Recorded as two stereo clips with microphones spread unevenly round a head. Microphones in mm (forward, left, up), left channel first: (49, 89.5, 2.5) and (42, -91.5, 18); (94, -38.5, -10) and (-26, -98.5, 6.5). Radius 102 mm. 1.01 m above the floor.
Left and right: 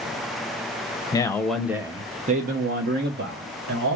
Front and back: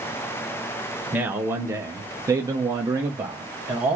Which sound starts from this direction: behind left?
A man speaking, at 1.1 s.